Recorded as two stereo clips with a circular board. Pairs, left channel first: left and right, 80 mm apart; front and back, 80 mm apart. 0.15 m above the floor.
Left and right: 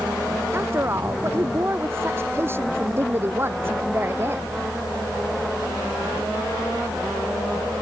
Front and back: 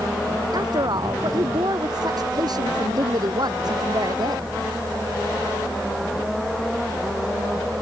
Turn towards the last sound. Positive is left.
turn(degrees=-150)